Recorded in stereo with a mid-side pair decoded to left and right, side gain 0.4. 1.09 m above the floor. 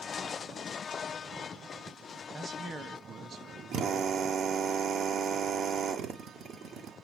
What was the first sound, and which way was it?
A man speaking, 40° right.